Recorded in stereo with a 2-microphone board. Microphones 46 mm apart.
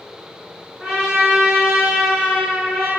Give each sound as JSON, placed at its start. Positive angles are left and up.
{"t": 0.8, "sound": "a trumpet", "side_deg": -10, "distance_m": 1.2}